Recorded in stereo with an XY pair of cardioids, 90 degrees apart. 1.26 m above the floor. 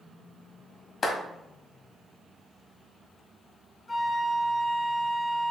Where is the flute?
25° left, 0.7 m.